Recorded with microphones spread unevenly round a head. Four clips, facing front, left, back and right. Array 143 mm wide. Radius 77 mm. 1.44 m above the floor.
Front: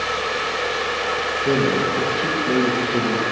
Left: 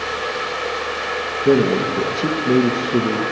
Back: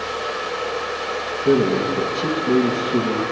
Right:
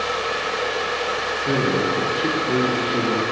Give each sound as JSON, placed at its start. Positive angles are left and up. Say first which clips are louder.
{"t": 1.4, "sound": "a man speaking", "louder": "left 6 dB, back 3 dB", "azimuth_deg": 110, "distance_m": 1.1}